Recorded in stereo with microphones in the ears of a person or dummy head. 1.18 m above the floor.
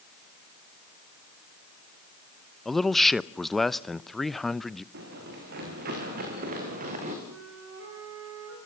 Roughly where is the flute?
Right.